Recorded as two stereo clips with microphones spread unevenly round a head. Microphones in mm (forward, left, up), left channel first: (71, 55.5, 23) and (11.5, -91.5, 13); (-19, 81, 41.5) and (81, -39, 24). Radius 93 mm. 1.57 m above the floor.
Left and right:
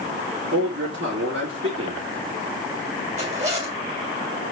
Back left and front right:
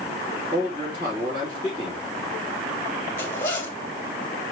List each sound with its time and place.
0.5 s a man speaking: 120° right, 4 m
3.2 s a zipper: 160° right, 1.8 m